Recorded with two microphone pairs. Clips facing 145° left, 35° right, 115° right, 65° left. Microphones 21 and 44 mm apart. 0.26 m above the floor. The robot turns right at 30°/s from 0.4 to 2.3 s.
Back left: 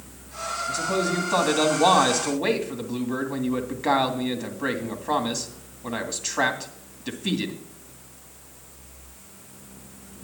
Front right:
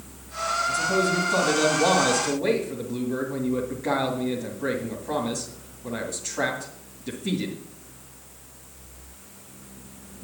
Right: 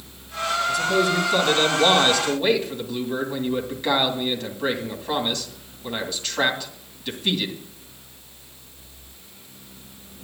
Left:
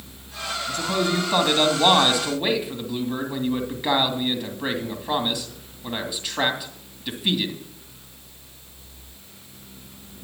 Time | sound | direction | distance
0.7 | a man speaking | 90° left | 2.5 m